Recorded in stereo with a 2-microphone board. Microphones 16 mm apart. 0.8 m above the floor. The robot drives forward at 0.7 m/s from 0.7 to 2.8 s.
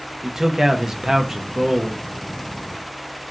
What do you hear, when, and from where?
0.2 s a man speaking: 25° right (ahead or behind), 0.7 m; by 2.0 s 20° right (ahead or behind), 0.8 m